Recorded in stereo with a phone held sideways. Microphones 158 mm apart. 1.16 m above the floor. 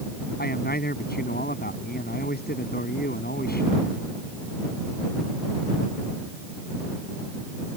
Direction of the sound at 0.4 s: 80° left.